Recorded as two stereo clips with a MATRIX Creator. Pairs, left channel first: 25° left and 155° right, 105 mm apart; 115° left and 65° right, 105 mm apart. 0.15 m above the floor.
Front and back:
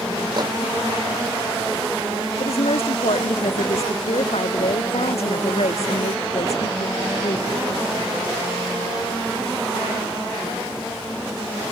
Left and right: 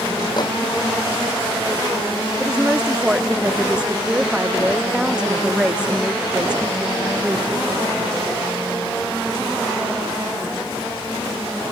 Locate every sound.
0.4 s a microwave: 155° left
2.4 s a woman speaking: 15° left